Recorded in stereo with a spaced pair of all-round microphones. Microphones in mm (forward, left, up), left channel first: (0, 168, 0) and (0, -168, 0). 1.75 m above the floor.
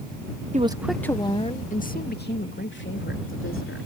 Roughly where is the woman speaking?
Right.